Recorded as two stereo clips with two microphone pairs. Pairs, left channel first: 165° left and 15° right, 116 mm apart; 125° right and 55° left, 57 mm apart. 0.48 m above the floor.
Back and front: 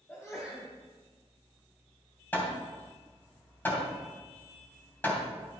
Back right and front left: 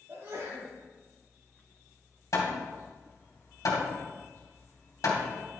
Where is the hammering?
120° right, 2.5 m.